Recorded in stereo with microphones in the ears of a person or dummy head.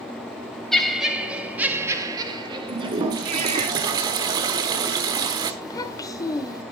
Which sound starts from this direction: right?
A toilet flushing, at 2.7 s.